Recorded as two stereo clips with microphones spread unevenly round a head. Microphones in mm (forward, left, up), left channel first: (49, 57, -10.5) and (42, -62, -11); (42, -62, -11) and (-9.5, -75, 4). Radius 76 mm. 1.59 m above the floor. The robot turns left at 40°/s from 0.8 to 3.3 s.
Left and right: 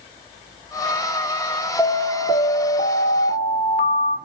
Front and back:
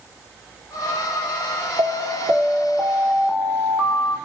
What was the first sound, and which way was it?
An alarm, 165° left.